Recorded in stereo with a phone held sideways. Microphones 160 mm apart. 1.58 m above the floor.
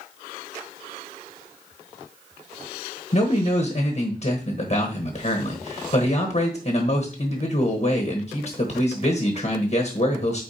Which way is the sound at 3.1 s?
50° left (ahead or behind).